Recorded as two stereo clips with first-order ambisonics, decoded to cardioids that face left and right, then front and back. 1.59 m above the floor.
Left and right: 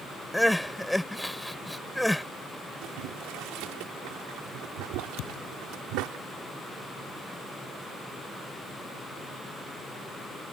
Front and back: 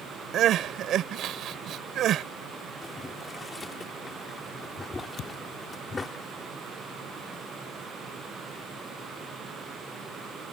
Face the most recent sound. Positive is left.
turn(degrees=55)